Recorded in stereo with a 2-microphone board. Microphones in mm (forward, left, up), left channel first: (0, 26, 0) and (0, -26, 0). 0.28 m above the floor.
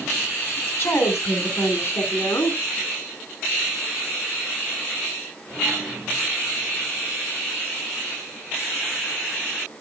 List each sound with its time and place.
0.6 s a woman speaking: 50° left (ahead or behind), 2.5 m; by 2.6 s 65° left (ahead or behind), 3.5 m